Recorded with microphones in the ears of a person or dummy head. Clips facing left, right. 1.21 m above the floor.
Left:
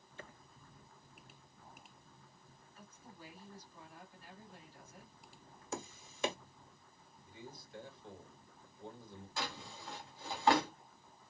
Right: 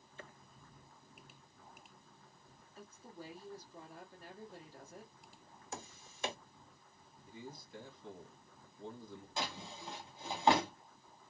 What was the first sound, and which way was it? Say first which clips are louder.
A woman speaking: right 5 dB; 40° right (ahead or behind).